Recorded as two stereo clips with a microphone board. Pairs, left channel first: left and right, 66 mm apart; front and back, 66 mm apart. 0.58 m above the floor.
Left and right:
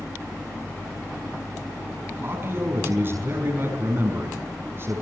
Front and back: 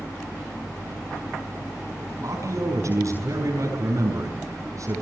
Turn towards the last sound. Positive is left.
turn(degrees=-145)